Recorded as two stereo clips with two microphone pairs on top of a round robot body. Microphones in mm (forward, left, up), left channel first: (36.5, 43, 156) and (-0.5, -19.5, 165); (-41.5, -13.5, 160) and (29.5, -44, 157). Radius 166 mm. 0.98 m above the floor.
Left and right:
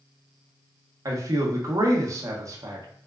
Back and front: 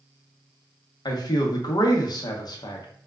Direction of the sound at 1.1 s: 165° right.